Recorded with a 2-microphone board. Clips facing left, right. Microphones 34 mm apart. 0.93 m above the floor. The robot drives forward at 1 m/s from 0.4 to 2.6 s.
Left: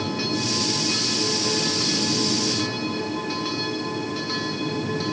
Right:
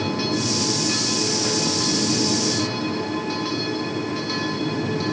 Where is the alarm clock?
No alarm clock in this recording.